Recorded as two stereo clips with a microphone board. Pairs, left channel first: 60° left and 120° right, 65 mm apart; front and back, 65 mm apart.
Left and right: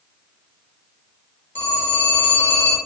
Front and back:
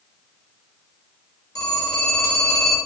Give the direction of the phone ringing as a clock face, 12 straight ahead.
12 o'clock.